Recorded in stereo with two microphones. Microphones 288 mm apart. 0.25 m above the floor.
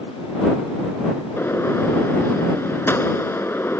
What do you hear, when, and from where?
1.4 s a gunshot: 10° left (ahead or behind)